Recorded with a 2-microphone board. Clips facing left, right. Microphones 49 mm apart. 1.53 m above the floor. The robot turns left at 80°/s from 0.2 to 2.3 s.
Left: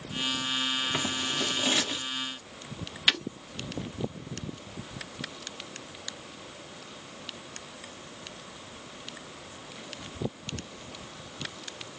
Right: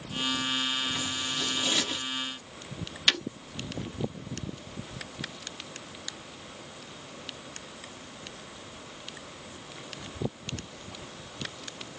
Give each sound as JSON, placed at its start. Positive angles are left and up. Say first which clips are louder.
{"t": 0.9, "sound": "scissors", "louder": "left 2 dB", "side_deg": 85, "distance_m": 0.8}
{"t": 3.1, "sound": "breaking glass", "louder": "even", "side_deg": 10, "distance_m": 0.7}